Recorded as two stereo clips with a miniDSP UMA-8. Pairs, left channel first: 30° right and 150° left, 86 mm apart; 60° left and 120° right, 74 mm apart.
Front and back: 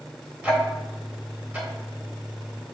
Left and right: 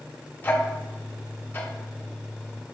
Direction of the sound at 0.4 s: 90° left.